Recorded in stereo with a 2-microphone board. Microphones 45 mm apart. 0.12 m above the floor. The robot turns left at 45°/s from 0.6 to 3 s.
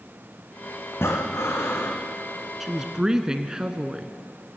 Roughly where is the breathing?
Left.